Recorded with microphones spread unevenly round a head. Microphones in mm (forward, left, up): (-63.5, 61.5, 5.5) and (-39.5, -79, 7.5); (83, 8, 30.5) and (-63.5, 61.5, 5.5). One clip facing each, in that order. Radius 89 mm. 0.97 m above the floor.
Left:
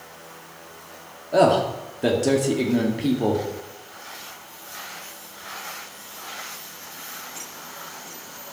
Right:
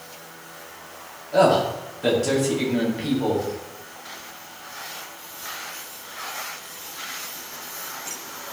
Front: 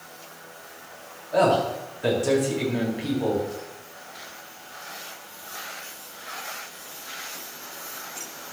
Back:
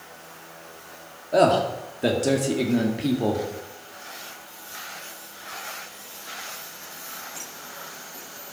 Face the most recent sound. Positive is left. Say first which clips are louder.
# even, back 2 dB
turn(degrees=130)